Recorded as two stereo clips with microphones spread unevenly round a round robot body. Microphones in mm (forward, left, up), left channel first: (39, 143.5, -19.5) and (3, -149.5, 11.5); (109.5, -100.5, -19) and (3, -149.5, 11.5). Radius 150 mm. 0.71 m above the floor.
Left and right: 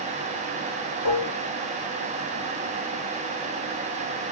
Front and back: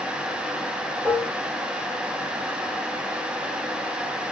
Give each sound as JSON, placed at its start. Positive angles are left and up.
{"t": 1.1, "sound": "dishes clattering", "azimuth_deg": 105, "distance_m": 1.1}